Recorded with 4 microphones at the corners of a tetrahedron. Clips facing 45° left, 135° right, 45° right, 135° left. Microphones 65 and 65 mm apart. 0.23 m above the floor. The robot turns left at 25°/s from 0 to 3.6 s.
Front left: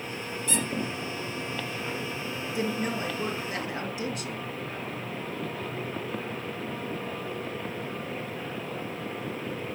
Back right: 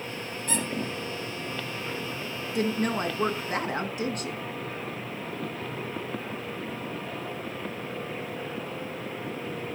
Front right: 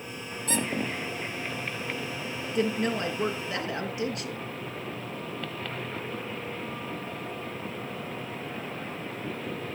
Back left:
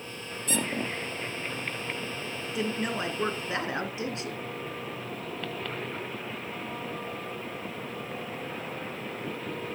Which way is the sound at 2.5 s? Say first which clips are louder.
Back right 4 dB, front right 4 dB; 140° right.